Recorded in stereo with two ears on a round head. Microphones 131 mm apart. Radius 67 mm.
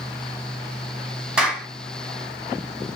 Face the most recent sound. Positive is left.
turn(degrees=-5)  # may be behind; listen again after turning